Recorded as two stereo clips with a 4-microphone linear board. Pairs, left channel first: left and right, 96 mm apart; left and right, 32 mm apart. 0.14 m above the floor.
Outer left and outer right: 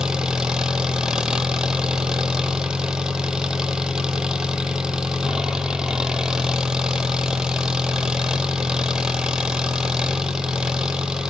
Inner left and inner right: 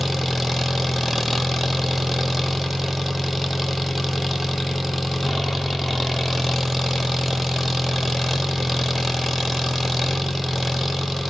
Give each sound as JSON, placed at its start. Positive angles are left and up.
{"t": 0.0, "sound": "an engine running", "side_deg": -5, "distance_m": 1.0}